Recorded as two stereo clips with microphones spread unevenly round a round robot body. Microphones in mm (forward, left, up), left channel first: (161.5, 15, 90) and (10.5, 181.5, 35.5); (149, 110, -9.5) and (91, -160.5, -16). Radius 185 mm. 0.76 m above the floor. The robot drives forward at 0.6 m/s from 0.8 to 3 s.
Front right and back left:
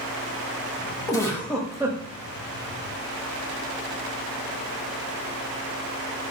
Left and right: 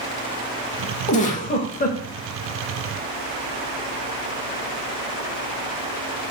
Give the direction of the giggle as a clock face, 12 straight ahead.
11 o'clock.